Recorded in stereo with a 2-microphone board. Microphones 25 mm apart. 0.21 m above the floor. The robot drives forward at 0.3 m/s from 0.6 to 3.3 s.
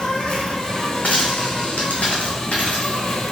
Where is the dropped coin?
80° left, 2 m; by 3.0 s 85° left, 2 m.